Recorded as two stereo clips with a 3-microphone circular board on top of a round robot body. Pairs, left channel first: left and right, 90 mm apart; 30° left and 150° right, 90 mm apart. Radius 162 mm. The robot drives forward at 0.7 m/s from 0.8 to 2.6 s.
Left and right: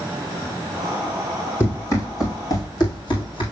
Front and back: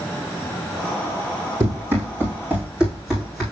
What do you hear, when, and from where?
1.6 s running footsteps: 150° left, 1.9 m; by 3.4 s 115° left, 2.5 m